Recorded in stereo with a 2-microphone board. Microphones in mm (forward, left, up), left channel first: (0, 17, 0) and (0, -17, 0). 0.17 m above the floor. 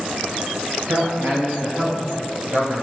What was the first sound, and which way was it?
A man speaking, 65° right (ahead or behind).